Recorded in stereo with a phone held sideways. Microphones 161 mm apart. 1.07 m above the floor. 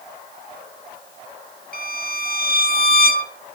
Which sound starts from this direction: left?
A violin, at 1.7 s.